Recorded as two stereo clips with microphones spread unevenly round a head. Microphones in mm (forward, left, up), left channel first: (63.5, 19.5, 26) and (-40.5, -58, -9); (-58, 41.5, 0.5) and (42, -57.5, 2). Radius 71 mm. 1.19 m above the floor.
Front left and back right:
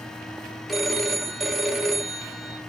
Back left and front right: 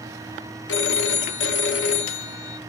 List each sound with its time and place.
0.7 s a phone ringing: 125° left, 0.8 m